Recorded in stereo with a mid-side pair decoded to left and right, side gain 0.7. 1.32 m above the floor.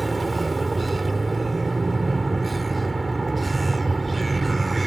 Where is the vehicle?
15° right.